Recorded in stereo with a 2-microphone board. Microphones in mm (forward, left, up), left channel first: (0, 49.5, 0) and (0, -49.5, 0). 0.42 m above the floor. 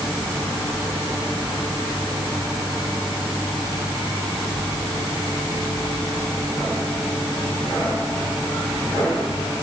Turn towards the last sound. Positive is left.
No sound to turn to.